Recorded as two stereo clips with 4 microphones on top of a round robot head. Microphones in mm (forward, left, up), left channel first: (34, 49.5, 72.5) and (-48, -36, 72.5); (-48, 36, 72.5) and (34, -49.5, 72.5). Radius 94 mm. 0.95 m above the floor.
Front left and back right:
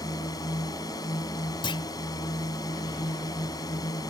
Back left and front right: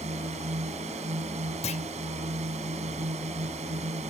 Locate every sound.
0.0 s a drone: 15° right
1.6 s a clunk: 100° left